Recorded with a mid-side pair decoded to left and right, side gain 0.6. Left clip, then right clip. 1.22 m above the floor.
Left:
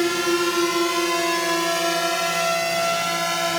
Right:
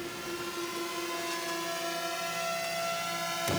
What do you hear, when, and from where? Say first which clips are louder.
0.0 s a drone: left 17 dB; 70° left; by 3.6 s 45° left